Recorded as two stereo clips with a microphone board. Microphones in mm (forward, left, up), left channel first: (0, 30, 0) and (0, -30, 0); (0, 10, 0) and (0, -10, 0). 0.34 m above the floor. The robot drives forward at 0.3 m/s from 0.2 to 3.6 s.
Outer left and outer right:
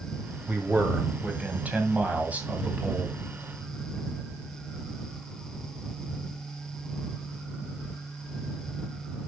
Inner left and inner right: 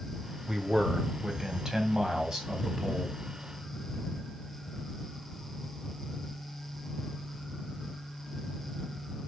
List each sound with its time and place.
0.5 s a man speaking: 30° right (ahead or behind), 1.8 m; by 3.2 s 20° right (ahead or behind), 2.5 m